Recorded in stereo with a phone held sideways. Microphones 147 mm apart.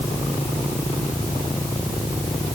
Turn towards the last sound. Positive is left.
No sound to turn to.